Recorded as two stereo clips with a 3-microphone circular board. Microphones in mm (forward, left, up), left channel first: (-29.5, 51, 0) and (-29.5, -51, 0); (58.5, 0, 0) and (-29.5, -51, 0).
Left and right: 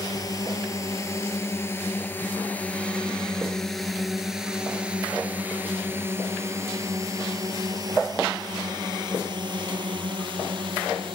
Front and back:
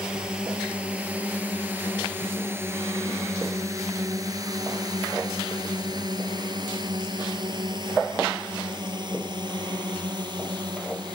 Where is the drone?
130° left; by 11.2 s 110° right.